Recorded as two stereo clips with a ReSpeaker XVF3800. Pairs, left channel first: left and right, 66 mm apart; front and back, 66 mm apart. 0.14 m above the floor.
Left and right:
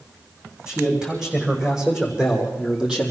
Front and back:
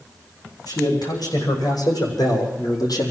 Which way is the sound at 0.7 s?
15° right.